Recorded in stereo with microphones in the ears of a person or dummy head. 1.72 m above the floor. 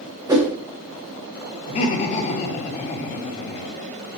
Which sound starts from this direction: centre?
A whoosh, at 0.3 s.